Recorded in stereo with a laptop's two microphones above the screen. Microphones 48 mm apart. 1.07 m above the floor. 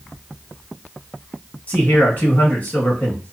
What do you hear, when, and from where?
1.7 s a man speaking: 40° left (ahead or behind), 1.3 m